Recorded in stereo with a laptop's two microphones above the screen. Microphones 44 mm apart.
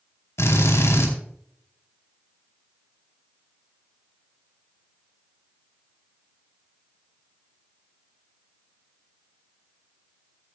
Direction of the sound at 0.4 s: 80° left.